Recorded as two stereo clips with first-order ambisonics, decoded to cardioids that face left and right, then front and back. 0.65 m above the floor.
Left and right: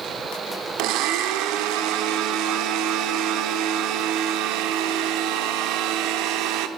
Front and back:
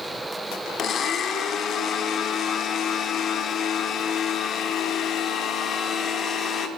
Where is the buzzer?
No buzzer in this recording.